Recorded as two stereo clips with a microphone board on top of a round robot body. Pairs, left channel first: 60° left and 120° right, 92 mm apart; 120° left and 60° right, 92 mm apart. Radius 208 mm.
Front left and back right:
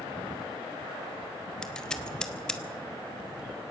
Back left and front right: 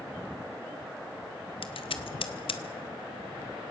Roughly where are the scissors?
Behind left.